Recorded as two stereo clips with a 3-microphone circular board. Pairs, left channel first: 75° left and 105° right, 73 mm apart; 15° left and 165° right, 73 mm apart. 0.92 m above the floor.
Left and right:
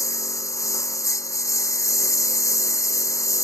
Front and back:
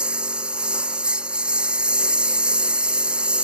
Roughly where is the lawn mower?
Behind left.